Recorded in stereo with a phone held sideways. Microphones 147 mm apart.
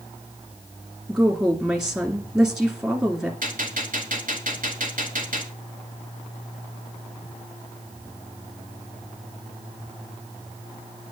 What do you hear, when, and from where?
1.1 s a woman speaking: 15° right (ahead or behind), 1.9 m
3.4 s a gunshot: 70° right (ahead or behind), 2 m